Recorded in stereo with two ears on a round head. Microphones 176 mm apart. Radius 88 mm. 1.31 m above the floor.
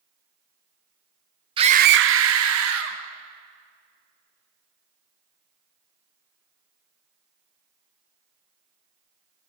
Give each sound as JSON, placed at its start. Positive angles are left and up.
{"t": 1.6, "sound": "a scream", "side_deg": -25, "distance_m": 0.7}